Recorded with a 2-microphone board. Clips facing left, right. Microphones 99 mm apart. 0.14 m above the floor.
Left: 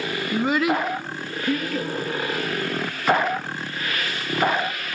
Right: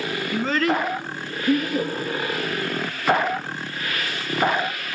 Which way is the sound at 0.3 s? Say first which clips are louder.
Left 1 dB; 25° left (ahead or behind).